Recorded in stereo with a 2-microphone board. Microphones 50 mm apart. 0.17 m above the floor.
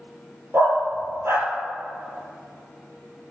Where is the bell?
No bell in this recording.